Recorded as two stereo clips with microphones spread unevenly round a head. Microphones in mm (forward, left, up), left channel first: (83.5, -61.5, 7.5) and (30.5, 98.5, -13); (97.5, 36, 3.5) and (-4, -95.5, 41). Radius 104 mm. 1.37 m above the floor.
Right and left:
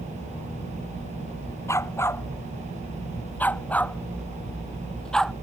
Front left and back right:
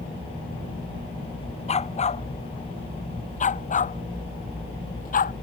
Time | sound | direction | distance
1.7 | a dog barking | straight ahead | ?